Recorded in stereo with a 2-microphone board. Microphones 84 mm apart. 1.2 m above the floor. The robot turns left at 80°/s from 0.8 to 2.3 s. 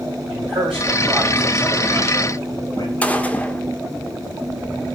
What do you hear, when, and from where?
0.3 s a man speaking: 105° right, 8 m; by 2.9 s 135° left, 8 m
3.0 s a gunshot: 15° left (ahead or behind), 1.4 m